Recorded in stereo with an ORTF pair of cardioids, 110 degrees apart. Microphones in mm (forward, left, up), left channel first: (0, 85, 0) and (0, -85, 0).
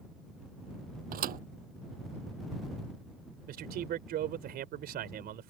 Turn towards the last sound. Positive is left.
turn(degrees=-65)